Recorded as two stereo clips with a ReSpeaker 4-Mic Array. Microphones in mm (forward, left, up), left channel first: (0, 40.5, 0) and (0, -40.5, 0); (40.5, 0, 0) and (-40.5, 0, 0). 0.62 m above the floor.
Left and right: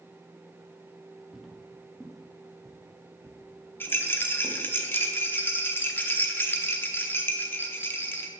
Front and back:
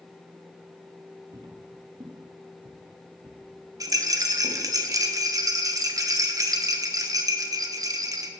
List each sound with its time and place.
1.3 s footsteps: straight behind, 0.9 m; by 4.6 s 175° left, 2.5 m
3.8 s a rattle: 145° left, 0.8 m